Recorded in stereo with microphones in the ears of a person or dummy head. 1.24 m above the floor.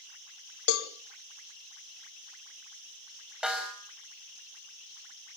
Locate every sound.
0.7 s a cowbell: 75° left (ahead or behind), 1.7 m
3.4 s a snare drum: centre (ahead or behind), 4 m